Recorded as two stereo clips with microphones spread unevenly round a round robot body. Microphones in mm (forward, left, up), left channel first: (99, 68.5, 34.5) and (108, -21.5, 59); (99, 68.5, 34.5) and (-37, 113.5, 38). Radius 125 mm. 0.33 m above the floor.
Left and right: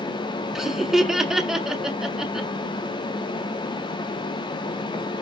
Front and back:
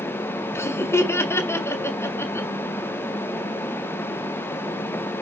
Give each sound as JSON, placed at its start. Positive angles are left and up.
{"t": 0.6, "sound": "laughter", "azimuth_deg": 30, "distance_m": 1.6}